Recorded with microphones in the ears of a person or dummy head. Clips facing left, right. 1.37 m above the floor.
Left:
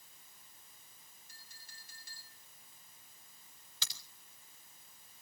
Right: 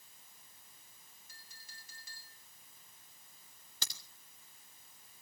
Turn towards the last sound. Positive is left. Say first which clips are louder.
# right 4 dB
turn(degrees=-40)  # may be behind; listen again after turning